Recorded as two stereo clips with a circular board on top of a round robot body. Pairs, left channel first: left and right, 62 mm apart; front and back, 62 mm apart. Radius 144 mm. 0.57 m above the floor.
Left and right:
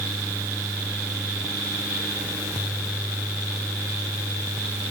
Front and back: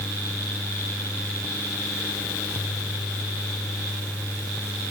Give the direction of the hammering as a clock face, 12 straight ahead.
No hammering in this recording.